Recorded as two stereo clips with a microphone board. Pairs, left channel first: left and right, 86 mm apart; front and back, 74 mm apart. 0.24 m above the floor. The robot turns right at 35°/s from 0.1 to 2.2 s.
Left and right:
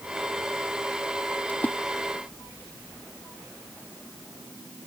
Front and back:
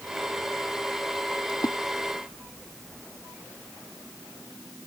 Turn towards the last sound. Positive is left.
turn(degrees=45)